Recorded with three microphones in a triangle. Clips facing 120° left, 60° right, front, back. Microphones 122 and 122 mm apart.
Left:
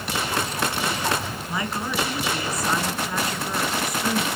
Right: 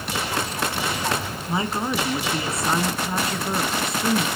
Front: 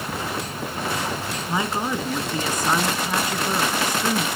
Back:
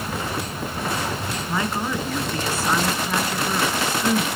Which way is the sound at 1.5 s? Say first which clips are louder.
Right 4 dB, front 1 dB; 55° right.